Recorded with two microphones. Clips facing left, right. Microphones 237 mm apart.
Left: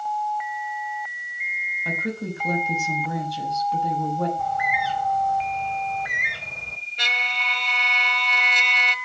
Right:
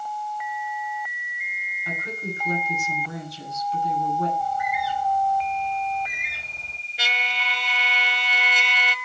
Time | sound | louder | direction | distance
1.9 | a woman speaking | left 5 dB | 65° left (ahead or behind) | 6.5 m
4.4 | a bird | even | 75° left (ahead or behind) | 2.5 m
7.0 | a trumpet | right 1 dB | 5° right (ahead or behind) | 1.4 m